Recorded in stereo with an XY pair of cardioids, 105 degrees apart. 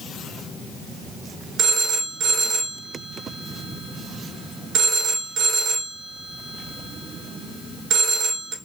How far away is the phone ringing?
About 2 m.